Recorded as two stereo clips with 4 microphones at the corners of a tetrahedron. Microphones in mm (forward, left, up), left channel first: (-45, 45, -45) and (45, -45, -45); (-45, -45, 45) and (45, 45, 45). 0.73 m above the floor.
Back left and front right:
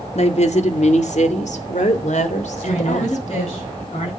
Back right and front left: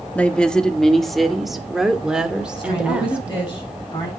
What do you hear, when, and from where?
0.1 s a woman speaking: 145° left, 1.6 m; by 3.5 s 125° left, 3 m
2.5 s a woman speaking: 165° left, 7 m